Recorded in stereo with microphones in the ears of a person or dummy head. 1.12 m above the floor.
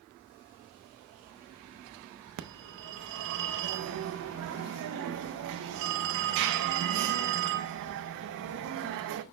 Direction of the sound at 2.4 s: 60° right (ahead or behind).